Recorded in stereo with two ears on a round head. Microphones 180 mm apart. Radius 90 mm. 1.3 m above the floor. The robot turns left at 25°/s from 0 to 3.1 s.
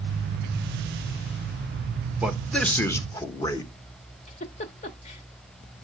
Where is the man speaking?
5° right (ahead or behind), 1.2 m; by 3.7 s 20° left (ahead or behind), 1.2 m.